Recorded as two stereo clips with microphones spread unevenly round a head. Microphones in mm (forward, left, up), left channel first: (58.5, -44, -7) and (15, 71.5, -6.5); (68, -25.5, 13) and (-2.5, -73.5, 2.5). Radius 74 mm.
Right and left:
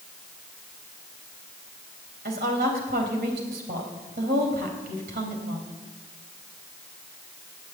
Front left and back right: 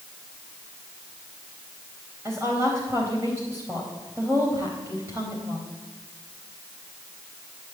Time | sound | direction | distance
2.2 | a woman speaking | 140° left | 4 m